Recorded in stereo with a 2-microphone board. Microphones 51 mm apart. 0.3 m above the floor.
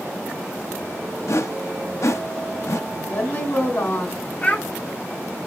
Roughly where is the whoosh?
Left.